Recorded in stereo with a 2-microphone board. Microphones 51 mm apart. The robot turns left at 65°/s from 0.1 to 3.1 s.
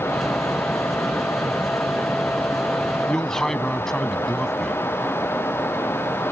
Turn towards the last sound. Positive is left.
turn(degrees=10)  # may be behind; listen again after turning